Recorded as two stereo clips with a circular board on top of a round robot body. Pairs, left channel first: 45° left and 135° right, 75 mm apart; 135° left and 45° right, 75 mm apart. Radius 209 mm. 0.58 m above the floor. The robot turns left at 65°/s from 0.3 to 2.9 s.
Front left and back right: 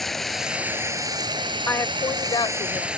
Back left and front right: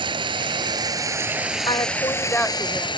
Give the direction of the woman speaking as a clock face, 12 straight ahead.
8 o'clock.